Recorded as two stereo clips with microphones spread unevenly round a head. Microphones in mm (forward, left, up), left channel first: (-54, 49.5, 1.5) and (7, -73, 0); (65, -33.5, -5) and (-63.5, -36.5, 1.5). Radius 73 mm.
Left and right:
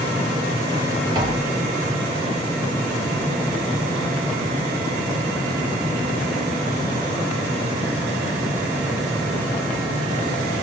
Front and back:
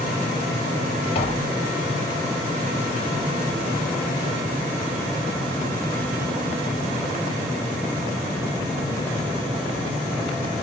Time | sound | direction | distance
1.1 | tapping | 10° right | 1.1 m